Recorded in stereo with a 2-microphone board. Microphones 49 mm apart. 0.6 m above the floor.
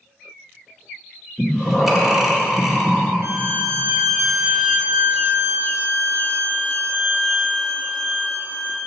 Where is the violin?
65° right (ahead or behind), 2.5 m.